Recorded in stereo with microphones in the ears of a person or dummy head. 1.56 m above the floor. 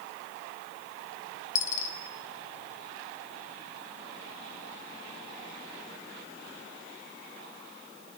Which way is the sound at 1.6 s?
50° left (ahead or behind).